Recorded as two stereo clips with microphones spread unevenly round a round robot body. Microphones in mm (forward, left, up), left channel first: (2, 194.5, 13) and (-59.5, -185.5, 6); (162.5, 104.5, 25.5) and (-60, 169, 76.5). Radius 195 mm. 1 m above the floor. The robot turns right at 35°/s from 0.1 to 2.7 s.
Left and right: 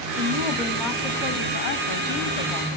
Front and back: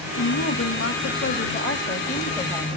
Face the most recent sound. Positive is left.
turn(degrees=55)